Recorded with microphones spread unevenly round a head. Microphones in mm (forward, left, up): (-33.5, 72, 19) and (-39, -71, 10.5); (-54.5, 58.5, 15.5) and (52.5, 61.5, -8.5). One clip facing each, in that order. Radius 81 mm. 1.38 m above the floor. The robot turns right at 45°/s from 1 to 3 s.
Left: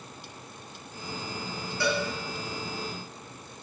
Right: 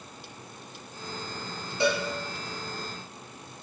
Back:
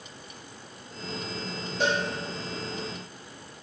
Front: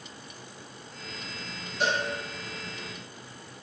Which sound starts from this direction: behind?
A cowbell, at 1.8 s.